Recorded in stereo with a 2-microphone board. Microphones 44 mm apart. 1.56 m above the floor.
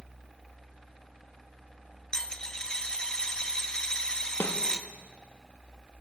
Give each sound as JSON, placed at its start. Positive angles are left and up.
{"t": 2.1, "sound": "a dropped coin", "side_deg": 15, "distance_m": 0.9}
{"t": 4.4, "sound": "a snare drum", "side_deg": 70, "distance_m": 2.0}